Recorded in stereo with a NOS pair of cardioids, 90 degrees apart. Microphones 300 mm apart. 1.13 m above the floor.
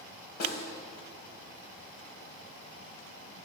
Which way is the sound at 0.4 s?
55° left.